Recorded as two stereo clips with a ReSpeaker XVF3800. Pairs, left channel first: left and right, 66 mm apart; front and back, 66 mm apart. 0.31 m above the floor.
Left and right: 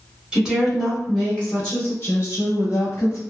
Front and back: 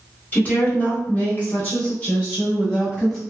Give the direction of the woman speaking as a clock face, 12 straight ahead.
1 o'clock.